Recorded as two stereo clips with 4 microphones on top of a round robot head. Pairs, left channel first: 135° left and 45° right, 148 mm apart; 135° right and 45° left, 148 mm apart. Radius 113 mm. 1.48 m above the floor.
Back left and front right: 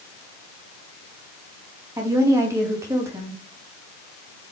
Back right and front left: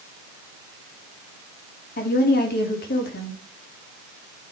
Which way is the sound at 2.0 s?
120° right.